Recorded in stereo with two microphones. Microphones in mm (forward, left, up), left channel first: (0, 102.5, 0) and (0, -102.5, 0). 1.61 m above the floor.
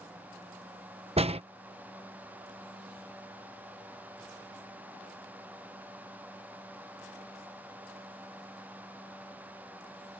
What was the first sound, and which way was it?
A door slam, 30° right (ahead or behind).